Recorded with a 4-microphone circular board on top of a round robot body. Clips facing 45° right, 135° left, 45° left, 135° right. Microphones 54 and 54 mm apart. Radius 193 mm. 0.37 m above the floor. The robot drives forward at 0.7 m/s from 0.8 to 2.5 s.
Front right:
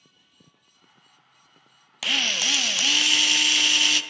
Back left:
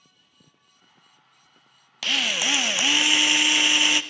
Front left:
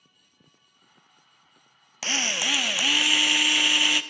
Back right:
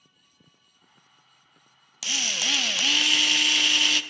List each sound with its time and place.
2.0 s a drill: 35° left, 0.7 m; by 4.0 s 100° left, 0.7 m